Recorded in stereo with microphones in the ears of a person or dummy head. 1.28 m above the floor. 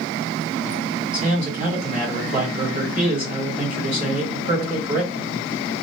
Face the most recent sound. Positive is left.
turn(degrees=-30)  # may be behind; listen again after turning